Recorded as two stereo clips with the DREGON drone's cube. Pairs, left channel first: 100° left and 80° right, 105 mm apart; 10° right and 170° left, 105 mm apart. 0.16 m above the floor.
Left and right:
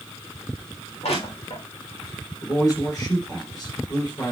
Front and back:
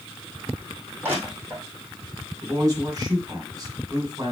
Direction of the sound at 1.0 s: 100° left.